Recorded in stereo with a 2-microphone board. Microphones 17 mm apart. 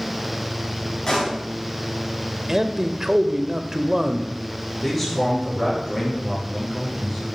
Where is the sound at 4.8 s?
20° left (ahead or behind), 6.5 m.